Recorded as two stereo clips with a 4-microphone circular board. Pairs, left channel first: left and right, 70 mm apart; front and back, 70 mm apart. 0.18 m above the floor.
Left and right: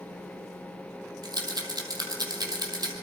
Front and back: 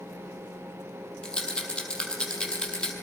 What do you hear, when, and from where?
1.2 s a rattle: 75° right, 4 m